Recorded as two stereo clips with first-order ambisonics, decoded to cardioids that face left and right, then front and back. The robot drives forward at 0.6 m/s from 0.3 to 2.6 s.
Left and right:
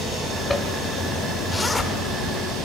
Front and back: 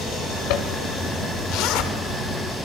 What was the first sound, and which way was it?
A zipper, 5° left.